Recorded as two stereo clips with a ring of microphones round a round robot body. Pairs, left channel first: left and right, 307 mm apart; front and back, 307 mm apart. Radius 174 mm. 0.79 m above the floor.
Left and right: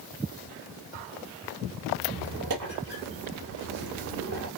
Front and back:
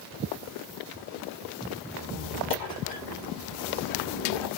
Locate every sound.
2.0 s a squeak: 40° right, 2 m